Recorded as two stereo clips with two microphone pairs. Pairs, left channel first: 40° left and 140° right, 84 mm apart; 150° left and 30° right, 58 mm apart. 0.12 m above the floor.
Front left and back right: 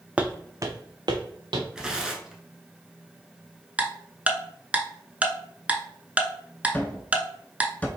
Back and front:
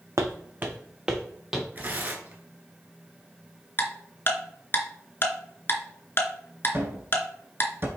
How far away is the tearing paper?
About 0.9 m.